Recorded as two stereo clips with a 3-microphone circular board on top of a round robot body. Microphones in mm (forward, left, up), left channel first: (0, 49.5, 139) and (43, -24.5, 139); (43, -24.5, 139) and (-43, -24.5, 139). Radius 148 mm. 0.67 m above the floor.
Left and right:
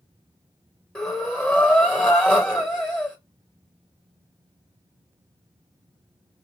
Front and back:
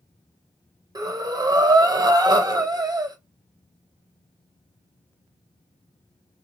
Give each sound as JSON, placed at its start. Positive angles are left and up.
{"t": 0.9, "sound": "breathing", "azimuth_deg": -160, "distance_m": 1.4}